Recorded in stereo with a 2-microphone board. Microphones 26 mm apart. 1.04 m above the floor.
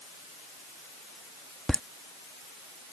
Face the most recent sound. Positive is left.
turn(degrees=35)  # may be behind; listen again after turning